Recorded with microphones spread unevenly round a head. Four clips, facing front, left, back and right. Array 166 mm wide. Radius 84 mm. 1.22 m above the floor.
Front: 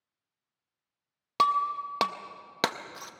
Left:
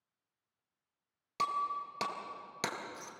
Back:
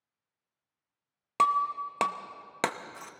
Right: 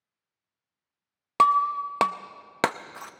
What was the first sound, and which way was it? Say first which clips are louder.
Breaking glass: right 14 dB, even; 85° right.